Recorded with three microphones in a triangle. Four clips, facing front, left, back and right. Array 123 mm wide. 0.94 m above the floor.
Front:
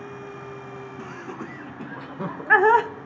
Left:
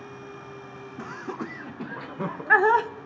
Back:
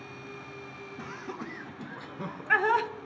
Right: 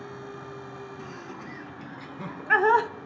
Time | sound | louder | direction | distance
1.0 | laughter | left 5 dB, front 1 dB | 85° left | 1.2 m